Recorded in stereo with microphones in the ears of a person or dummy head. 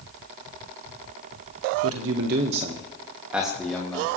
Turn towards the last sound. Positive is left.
turn(degrees=0)  # may be behind; listen again after turning